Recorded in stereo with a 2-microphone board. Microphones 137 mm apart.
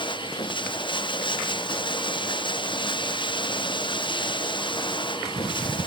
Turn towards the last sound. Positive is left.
turn(degrees=35)  # may be behind; listen again after turning